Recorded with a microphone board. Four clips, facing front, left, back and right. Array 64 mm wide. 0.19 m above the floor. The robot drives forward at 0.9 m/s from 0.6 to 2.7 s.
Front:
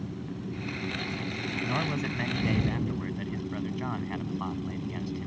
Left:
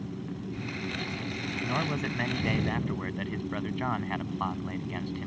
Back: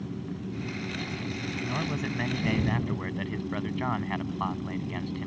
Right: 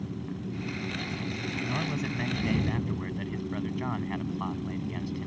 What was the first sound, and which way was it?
A man speaking, 60° left.